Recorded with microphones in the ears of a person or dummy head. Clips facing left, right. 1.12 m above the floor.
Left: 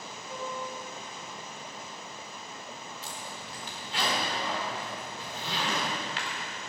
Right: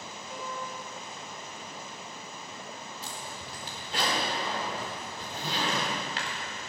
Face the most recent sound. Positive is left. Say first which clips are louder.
# right 1 dB
turn(degrees=-35)  # may be behind; listen again after turning